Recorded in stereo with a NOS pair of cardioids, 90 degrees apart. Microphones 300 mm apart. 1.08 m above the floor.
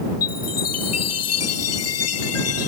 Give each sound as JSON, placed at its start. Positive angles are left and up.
{"t": 0.2, "sound": "a chime", "azimuth_deg": 60}